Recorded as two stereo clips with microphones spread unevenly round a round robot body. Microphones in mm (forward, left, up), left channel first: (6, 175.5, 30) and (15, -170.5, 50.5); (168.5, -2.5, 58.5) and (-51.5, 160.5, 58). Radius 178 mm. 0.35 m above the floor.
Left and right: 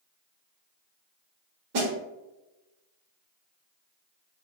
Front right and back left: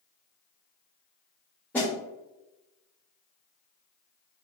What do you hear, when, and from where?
1.7 s a snare drum: 120° right, 0.8 m